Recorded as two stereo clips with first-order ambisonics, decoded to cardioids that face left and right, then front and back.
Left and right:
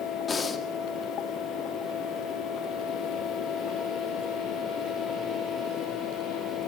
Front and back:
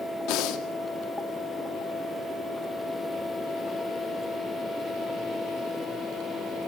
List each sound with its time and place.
0.3 s breathing: 20° left, 2 m